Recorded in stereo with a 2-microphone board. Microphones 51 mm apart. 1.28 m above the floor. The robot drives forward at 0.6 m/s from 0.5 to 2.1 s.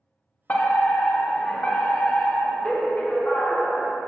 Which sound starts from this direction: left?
A fire alarm, at 0.5 s.